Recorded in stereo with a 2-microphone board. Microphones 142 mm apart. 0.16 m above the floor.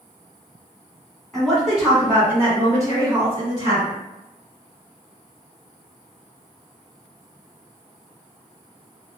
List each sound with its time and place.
1.3 s a woman speaking: centre (ahead or behind), 1.6 m; by 4.0 s 35° right (ahead or behind), 1.9 m